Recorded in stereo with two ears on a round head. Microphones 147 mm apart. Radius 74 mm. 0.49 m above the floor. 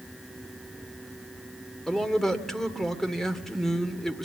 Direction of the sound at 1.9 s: 5° left (ahead or behind).